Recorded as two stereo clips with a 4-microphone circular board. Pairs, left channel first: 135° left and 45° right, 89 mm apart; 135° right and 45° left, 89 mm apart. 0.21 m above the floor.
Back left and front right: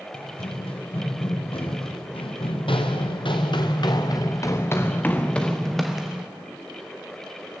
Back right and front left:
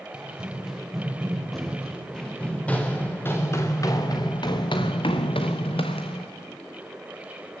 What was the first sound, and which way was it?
Running footsteps, 125° left.